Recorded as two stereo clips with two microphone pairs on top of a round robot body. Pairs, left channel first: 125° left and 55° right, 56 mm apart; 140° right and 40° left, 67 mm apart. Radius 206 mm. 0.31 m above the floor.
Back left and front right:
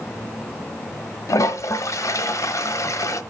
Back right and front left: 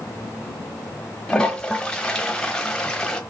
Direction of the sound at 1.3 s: 140° left.